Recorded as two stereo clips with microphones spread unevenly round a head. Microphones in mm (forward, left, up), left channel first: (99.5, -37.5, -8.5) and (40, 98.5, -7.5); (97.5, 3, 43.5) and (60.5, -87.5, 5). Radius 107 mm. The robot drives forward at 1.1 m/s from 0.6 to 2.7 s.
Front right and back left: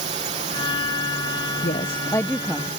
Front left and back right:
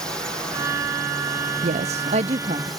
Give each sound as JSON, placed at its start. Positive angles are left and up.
{"t": 0.0, "sound": "a drone", "azimuth_deg": 165}
{"t": 1.6, "sound": "a woman speaking", "azimuth_deg": -115}